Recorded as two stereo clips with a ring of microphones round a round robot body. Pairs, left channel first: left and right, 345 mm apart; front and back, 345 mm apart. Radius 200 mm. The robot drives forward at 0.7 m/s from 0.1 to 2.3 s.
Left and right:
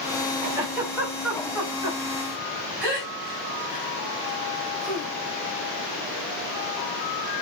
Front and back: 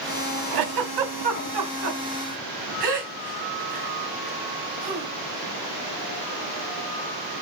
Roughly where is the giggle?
Behind.